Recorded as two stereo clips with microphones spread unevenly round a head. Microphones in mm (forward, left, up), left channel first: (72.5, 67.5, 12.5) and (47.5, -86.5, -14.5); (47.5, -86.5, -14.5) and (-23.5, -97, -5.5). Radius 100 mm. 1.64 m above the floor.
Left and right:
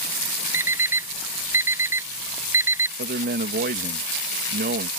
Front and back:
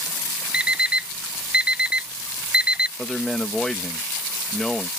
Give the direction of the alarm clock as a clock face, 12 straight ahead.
6 o'clock.